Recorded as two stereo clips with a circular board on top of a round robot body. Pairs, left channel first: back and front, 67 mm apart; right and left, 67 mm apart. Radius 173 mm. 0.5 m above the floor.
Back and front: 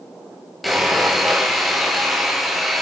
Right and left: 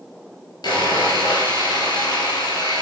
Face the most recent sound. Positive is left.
turn(degrees=-90)